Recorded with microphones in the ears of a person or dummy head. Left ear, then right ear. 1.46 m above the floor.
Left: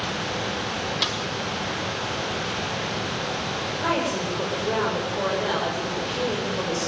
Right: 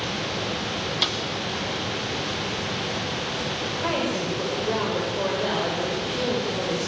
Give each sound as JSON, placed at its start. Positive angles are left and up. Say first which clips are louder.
{"t": 1.0, "sound": "a snare drum", "louder": "right 2 dB", "side_deg": 5, "distance_m": 1.7}
{"t": 3.8, "sound": "a woman speaking", "louder": "left 2 dB", "side_deg": 10, "distance_m": 5.5}